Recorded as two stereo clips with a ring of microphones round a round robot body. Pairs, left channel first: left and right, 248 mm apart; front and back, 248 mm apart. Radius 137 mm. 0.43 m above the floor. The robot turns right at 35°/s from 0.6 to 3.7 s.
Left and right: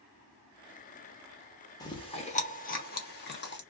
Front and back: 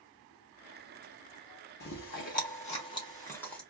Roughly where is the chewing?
Ahead.